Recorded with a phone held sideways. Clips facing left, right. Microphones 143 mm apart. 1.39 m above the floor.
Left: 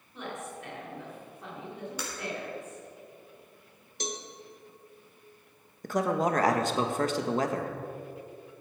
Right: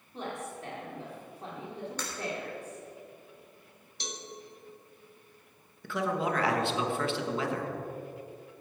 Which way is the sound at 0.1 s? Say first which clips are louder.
Right 1 dB; 35° right (ahead or behind).